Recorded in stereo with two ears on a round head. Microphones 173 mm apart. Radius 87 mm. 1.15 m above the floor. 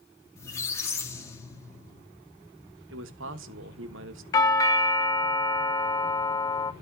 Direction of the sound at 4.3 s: 20° left (ahead or behind).